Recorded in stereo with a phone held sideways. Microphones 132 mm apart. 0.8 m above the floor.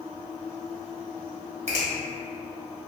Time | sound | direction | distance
1.7 | a finger snap | 55° right (ahead or behind) | 1.0 m